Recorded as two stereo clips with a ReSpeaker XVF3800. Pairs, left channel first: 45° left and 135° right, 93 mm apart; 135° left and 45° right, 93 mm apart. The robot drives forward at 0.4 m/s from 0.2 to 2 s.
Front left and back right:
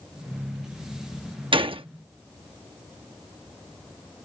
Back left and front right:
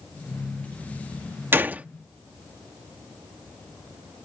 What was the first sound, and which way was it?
A gunshot, 110° right.